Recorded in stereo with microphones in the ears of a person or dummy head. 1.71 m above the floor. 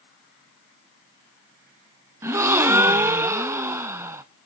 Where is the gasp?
15° right (ahead or behind), 0.6 m.